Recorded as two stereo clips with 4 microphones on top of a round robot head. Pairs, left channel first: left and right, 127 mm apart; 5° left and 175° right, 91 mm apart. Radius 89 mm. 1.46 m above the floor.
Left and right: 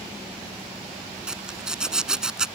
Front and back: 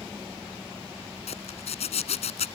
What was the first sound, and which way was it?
A zipper, 5° right.